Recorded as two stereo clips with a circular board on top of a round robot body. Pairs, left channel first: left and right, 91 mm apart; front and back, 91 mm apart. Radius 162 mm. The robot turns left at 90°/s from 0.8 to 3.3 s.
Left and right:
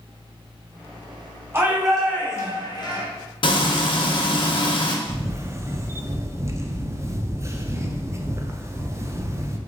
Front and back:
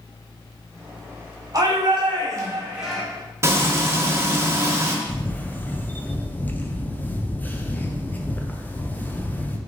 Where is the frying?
120° left, 0.7 m.